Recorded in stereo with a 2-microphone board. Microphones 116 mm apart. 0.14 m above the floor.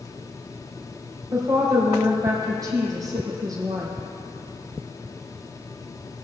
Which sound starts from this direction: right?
A woman speaking, at 1.3 s.